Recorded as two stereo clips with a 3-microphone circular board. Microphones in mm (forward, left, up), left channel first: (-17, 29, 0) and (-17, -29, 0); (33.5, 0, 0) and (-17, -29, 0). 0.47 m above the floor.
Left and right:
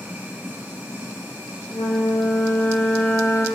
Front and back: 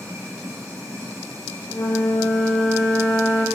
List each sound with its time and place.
0.0 s running water: 150° right, 4 m
1.7 s a flute: 85° left, 5 m